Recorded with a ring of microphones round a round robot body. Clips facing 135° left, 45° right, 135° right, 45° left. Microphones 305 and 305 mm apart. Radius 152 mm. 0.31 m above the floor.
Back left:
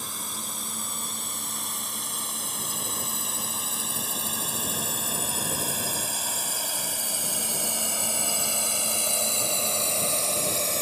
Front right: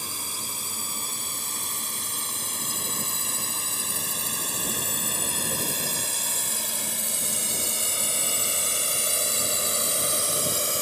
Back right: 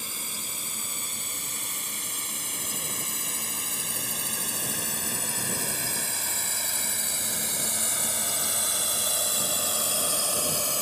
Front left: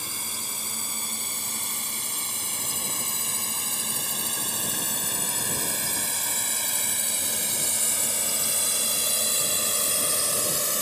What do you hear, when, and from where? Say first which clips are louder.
0.0 s a drone: even, front left 1 dB; 10° left